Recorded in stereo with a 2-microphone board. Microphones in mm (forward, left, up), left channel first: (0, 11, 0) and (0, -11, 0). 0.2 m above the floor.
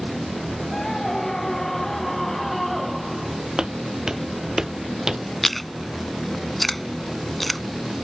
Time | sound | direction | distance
0.7 | a scream | 25° left (ahead or behind) | ?
3.6 | footsteps | 35° right (ahead or behind) | ?
5.4 | chewing | 10° left (ahead or behind) | ?